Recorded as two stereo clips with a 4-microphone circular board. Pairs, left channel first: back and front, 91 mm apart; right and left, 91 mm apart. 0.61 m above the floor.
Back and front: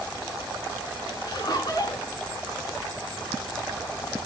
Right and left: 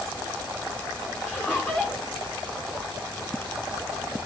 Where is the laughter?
155° right, 1.9 m.